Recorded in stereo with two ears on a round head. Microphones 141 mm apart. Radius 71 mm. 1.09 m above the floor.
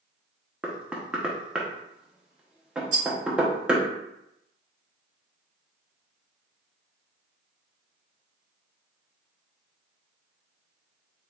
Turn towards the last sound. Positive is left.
turn(degrees=-50)  # may be behind; listen again after turning